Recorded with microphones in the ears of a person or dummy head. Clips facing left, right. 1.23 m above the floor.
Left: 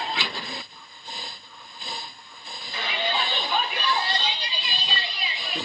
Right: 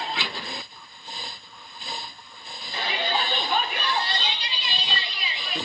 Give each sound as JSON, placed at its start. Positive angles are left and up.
{"t": 2.7, "sound": "a shout", "side_deg": -30, "distance_m": 3.0}